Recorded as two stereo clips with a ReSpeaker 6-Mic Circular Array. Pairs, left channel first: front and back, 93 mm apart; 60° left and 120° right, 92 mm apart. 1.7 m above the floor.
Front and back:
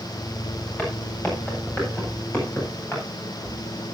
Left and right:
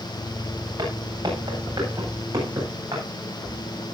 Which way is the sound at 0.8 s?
75° right.